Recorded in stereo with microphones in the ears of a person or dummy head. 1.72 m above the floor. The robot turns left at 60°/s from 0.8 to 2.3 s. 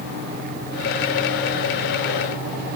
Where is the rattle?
I don't hear a rattle.